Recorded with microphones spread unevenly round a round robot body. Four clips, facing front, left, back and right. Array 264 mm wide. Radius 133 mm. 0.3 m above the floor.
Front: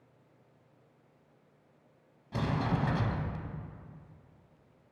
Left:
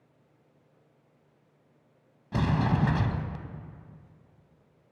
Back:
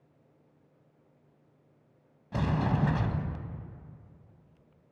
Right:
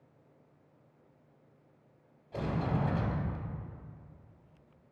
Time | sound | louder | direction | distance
2.3 | a sliding door | left 6 dB, back 2 dB | 100° left | 0.6 m